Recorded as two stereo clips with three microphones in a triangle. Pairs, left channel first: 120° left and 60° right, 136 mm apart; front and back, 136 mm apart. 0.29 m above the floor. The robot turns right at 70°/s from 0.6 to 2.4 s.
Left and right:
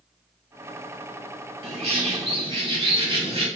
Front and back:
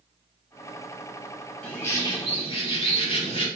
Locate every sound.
1.6 s a bird: 80° right, 1.0 m; by 3.5 s 25° right, 1.0 m